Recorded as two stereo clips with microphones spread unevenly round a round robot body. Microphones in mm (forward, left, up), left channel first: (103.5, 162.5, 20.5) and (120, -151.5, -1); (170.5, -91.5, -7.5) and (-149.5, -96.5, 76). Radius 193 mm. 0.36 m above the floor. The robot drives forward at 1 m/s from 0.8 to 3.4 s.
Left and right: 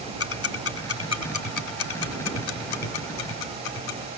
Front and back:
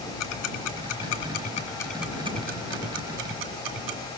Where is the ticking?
45° left, 1.8 m; by 4.0 s 135° left, 1.9 m.